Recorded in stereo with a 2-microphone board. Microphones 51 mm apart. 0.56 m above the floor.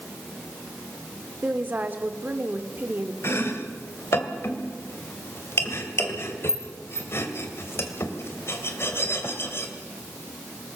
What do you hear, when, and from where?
1.4 s a woman speaking: 35° right (ahead or behind), 1.4 m
3.2 s chopping: 55° left (ahead or behind), 2 m